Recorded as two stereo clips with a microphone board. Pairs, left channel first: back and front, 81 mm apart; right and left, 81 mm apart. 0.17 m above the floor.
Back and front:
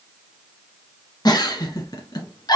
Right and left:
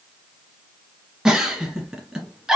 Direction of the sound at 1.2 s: 170° left.